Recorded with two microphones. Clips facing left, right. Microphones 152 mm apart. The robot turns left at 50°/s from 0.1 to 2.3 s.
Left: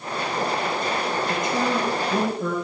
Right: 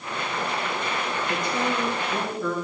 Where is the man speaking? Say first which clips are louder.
Left 2 dB; 165° left, 3 m; by 2.6 s 115° left, 3 m.